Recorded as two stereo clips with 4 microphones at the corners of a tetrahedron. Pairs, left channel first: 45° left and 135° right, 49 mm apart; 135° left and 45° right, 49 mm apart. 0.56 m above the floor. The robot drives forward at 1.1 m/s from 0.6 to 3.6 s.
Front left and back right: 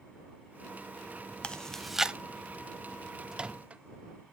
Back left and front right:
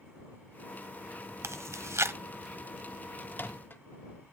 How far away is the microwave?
About 0.5 m.